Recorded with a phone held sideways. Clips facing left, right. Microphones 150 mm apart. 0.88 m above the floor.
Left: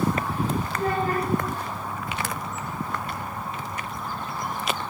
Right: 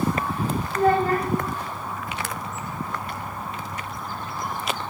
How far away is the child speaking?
About 3.5 m.